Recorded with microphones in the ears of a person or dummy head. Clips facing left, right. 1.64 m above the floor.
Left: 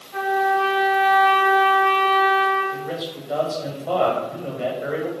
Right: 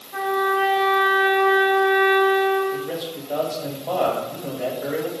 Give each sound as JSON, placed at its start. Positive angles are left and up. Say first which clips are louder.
{"t": 0.1, "sound": "a trumpet", "louder": "left 1 dB", "side_deg": -40, "distance_m": 1.3}
{"t": 2.7, "sound": "a man speaking", "louder": "right 1 dB", "side_deg": 0, "distance_m": 1.0}